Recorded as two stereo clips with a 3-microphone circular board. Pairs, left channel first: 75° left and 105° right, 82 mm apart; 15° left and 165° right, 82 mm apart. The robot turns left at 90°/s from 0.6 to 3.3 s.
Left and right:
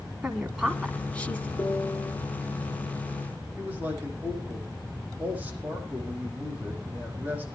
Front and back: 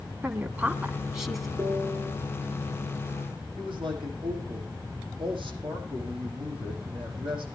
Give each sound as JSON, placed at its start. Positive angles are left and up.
{"t": 0.2, "sound": "a woman speaking", "azimuth_deg": 175, "distance_m": 1.4}
{"t": 1.6, "sound": "a piano", "azimuth_deg": 100, "distance_m": 1.5}
{"t": 3.6, "sound": "a man speaking", "azimuth_deg": -175, "distance_m": 7.5}